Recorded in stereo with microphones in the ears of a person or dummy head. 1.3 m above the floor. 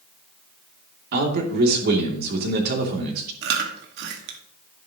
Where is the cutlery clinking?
I don't hear cutlery clinking.